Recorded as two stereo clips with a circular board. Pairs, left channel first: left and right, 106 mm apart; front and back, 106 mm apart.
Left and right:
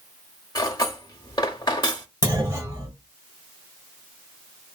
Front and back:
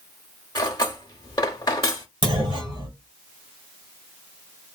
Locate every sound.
0.6 s cutlery clinking: 45° left, 0.7 m
2.2 s a clunk: 150° right, 1.9 m